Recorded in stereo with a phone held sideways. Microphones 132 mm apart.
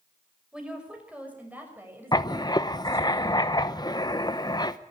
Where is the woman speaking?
5° right (ahead or behind), 6 m; by 3.1 s 20° right (ahead or behind), 7.5 m.